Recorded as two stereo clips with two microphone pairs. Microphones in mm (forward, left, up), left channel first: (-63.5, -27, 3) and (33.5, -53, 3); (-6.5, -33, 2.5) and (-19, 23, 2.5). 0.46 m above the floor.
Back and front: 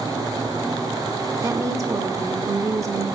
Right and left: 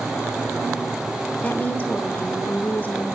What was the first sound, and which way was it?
A woman speaking, 45° right.